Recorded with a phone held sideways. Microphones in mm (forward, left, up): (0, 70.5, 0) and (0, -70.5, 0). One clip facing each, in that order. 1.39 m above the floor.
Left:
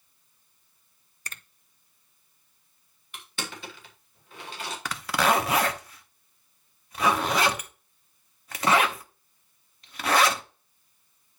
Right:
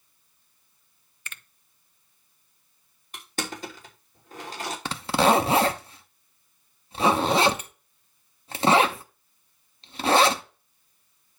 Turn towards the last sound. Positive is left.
turn(degrees=-30)  # may be behind; listen again after turning